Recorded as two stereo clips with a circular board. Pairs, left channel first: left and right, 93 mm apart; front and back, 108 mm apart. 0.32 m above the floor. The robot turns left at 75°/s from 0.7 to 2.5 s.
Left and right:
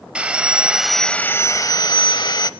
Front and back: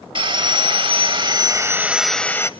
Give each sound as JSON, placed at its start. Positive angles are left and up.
{"t": 0.1, "sound": "sawing", "azimuth_deg": -165, "distance_m": 0.8}